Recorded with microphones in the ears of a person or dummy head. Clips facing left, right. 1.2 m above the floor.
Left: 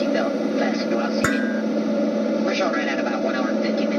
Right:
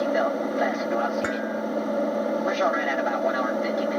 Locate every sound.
0.0 s an aircraft: 35° left (ahead or behind)
1.2 s dishes clattering: 65° left (ahead or behind)